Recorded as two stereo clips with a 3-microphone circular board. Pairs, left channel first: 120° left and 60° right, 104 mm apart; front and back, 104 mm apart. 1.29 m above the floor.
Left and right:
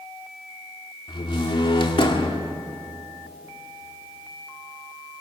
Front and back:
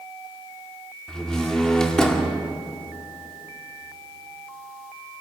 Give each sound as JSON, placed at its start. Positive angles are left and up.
{"t": 1.1, "sound": "a door slam", "azimuth_deg": 85, "distance_m": 2.0}